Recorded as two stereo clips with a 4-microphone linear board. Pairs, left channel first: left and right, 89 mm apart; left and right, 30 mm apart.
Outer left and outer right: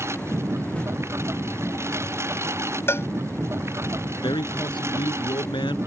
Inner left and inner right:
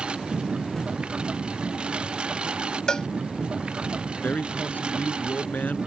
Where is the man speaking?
65° left (ahead or behind).